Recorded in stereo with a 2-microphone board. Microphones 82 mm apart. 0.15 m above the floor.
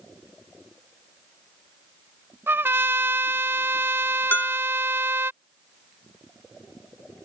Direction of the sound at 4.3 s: 25° left (ahead or behind).